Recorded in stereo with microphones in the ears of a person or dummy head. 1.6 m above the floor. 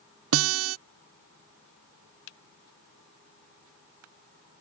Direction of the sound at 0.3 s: 80° right.